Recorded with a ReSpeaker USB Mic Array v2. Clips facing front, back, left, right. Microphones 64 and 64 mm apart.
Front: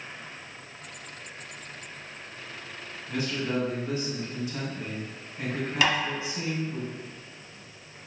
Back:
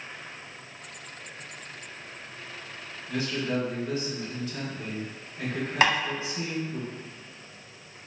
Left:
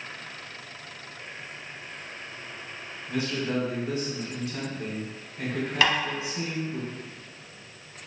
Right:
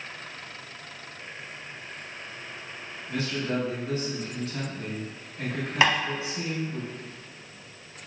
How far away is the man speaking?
About 1.6 m.